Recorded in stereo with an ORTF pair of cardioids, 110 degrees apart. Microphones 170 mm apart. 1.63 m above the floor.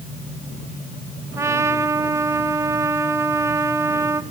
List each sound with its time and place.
1.4 s a trumpet: 15° right, 1.0 m